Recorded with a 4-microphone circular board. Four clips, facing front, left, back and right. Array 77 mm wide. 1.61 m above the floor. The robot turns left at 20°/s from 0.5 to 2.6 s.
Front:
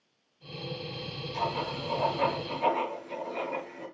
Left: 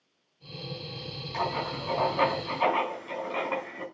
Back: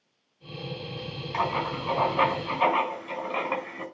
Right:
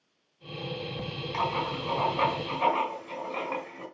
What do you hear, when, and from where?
1.3 s writing: 165° right, 5 m; by 3.9 s 170° left, 5 m